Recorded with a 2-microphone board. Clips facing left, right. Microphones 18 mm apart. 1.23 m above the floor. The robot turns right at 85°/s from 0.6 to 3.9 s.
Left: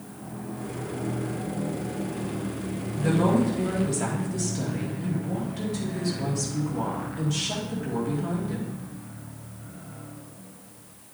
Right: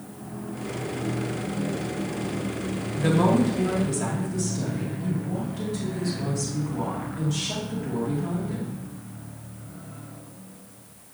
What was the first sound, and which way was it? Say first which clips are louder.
A woman speaking: right 2 dB; 65° right.